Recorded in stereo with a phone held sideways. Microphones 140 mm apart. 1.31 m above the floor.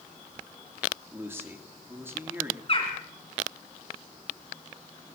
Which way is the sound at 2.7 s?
40° left (ahead or behind).